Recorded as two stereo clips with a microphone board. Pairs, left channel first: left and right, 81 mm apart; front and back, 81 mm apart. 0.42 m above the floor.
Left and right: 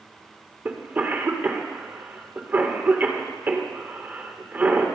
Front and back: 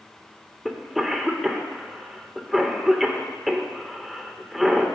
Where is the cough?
95° right, 1.1 m.